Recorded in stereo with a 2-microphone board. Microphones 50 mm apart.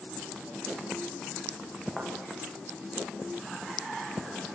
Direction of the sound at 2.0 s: Centre (ahead or behind).